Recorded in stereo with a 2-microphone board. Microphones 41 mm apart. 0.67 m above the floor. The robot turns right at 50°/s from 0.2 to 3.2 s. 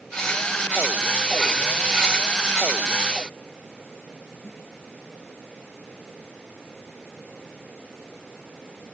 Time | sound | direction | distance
4.4 | a snare drum | 85° left | ?